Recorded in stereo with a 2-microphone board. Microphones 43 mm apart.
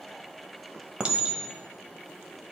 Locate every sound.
1.0 s a clink: 20° right (ahead or behind), 0.8 m